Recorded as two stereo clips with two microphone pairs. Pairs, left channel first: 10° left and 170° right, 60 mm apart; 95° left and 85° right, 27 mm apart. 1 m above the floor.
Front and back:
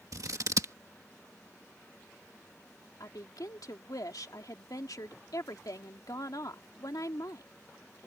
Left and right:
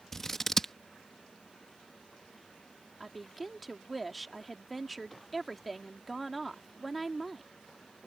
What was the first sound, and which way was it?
Scissors, 170° left.